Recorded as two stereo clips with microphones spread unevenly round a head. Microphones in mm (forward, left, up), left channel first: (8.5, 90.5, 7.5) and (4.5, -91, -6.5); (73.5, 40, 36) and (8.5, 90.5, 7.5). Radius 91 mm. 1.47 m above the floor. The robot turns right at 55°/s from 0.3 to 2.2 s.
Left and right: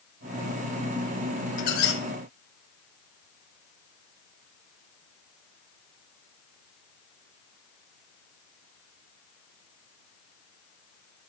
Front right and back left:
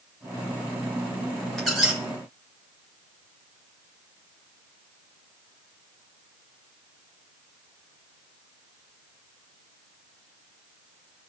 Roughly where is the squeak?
Ahead left.